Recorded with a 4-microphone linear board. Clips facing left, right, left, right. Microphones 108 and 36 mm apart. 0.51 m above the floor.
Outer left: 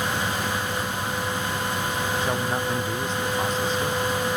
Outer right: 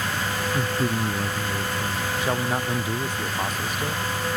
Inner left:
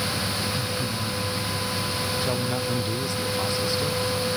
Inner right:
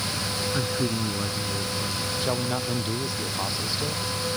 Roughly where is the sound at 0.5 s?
Right.